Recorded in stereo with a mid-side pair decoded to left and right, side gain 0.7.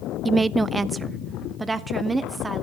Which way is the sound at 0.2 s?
15° right.